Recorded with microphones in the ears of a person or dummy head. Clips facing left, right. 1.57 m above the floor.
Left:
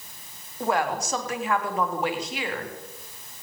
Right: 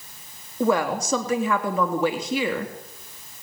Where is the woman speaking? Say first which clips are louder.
Right 4 dB; 75° right (ahead or behind), 3.5 m.